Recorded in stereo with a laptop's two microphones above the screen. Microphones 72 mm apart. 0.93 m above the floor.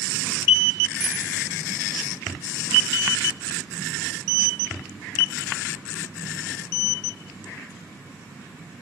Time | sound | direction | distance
1.0 | a bicycle bell | 20° right (ahead or behind) | 5.5 m